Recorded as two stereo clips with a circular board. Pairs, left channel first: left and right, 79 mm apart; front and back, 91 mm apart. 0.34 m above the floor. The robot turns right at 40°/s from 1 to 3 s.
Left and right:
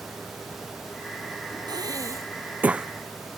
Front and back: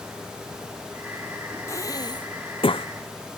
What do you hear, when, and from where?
1.7 s breathing: 60° right; by 2.9 s 10° right